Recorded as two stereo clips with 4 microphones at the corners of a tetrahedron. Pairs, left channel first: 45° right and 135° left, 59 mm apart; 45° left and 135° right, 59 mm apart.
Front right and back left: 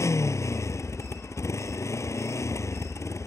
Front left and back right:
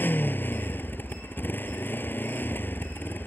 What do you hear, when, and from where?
0.0 s a motorcycle: 10° right